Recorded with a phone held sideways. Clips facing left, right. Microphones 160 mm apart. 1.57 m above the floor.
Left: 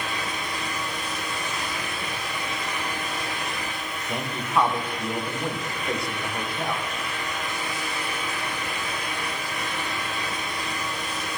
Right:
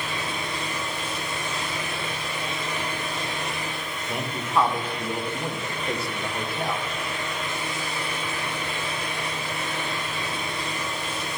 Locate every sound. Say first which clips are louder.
0.0 s a fan: even; 30° right (ahead or behind), 3 m
4.1 s a man speaking: even; centre (ahead or behind), 1.6 m